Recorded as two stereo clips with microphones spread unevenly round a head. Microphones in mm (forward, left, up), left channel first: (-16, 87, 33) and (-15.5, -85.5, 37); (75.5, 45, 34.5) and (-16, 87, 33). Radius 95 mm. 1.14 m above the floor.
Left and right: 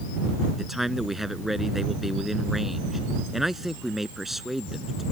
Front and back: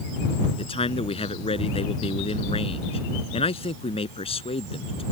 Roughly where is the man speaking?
Ahead.